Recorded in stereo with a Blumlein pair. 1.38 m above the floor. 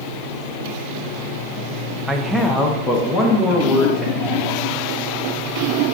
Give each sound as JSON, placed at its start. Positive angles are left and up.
{"t": 2.1, "sound": "a man speaking", "azimuth_deg": -5, "distance_m": 0.5}